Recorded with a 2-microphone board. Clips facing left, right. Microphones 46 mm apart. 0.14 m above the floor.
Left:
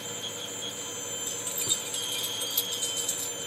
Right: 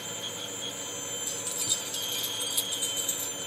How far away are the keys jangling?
About 0.9 m.